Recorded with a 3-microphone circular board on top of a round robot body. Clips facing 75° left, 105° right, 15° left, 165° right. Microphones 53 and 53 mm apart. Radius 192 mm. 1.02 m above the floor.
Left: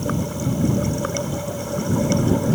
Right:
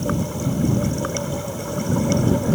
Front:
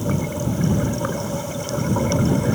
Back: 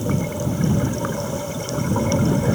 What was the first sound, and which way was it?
Only background noise.